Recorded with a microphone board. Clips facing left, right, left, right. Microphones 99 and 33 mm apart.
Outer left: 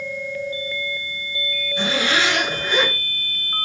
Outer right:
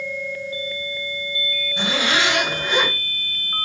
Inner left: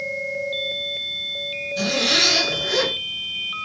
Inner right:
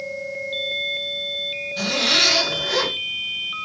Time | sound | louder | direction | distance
1.8 | a zipper | outer left 1 dB, even | 25° right (ahead or behind) | 2 m